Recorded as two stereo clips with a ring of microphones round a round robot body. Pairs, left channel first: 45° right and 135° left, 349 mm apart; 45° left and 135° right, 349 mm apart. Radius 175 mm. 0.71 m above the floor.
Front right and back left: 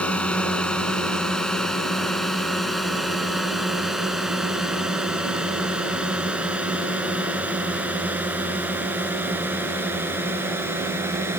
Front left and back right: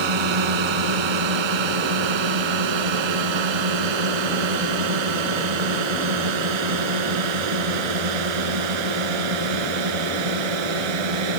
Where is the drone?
130° right; by 11.4 s 140° right.